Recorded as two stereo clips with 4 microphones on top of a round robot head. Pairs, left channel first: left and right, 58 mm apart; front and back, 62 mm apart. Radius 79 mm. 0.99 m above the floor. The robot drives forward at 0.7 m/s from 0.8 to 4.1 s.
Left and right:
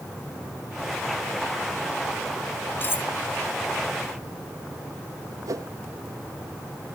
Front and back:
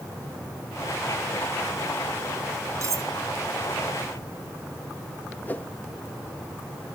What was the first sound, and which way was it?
Cutlery clinking, 140° left.